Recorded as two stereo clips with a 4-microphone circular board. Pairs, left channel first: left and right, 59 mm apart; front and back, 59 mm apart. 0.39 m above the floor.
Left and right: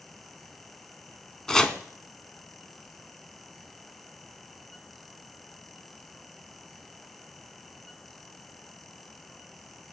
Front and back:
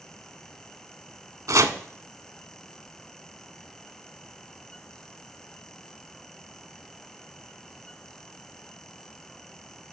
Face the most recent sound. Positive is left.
turn(degrees=170)